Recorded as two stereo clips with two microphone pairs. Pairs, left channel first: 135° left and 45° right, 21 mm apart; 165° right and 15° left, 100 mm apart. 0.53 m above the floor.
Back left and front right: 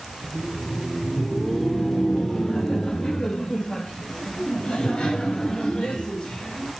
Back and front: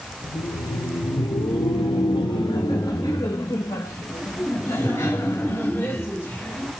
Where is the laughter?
125° right, 1.2 m; by 6.7 s 125° left, 3.5 m.